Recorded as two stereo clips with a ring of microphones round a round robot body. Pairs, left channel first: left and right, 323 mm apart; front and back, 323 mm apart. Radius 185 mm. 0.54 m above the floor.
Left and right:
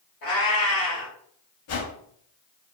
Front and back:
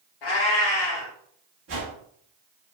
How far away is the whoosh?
About 0.6 m.